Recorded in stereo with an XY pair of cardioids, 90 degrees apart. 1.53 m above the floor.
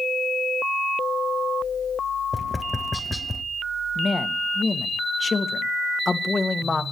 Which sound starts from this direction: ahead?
Tapping, at 2.3 s.